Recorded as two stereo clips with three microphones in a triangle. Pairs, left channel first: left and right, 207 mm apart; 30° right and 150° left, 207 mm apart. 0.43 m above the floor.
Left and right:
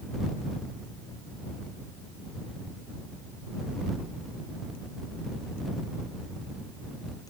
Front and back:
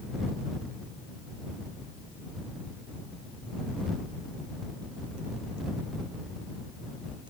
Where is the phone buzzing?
I don't hear a phone buzzing.